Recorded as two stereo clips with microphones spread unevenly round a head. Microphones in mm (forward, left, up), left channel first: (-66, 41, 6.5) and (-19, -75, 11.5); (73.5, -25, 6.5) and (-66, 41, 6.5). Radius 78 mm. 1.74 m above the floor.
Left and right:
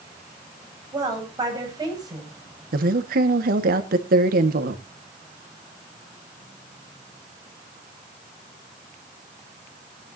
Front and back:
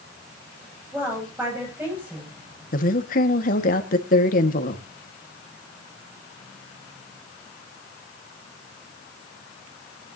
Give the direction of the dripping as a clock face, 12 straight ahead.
No dripping in this recording.